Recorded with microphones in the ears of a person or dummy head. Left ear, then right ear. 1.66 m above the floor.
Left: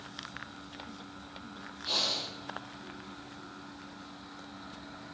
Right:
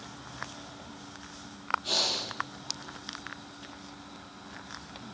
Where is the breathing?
10° right (ahead or behind), 8 m.